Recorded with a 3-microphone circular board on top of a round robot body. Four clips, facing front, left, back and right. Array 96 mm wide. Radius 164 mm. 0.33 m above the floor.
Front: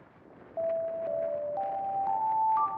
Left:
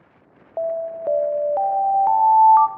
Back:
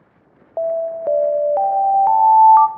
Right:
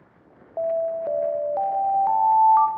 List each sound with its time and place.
0.6 s an alarm: 160° left, 1.7 m